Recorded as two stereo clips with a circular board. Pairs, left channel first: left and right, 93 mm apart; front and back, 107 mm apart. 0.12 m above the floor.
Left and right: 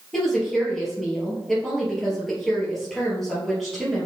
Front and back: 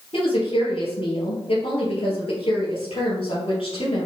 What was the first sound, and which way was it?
A woman speaking, 5° left.